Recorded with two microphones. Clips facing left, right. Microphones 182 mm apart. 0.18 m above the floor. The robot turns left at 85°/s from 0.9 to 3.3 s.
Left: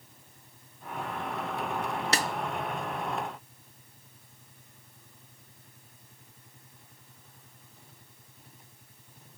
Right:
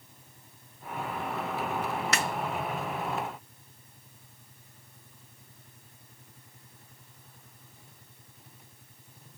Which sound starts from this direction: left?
A snare drum, at 2.1 s.